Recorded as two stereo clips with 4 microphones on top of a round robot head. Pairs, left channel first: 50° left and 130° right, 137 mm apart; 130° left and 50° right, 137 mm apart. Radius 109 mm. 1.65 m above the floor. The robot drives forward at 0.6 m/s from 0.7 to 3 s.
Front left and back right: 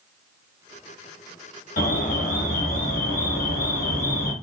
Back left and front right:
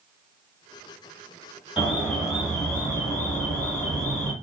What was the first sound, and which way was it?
An alarm, 35° left.